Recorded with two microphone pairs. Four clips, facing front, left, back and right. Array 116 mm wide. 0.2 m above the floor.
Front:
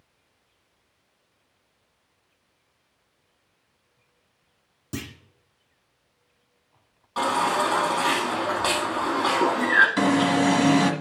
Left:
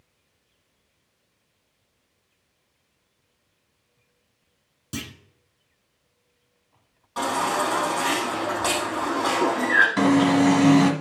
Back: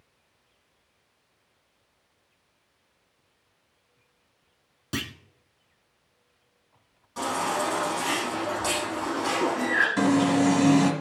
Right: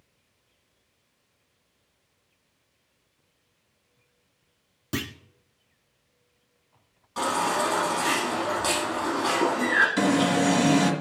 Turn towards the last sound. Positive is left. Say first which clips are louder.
# left 6 dB, front 1 dB
turn(degrees=45)